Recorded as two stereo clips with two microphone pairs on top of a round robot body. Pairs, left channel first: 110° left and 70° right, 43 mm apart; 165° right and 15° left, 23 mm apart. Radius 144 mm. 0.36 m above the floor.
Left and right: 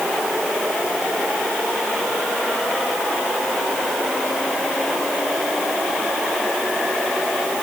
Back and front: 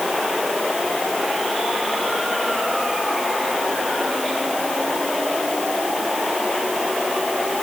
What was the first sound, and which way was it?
Only background noise.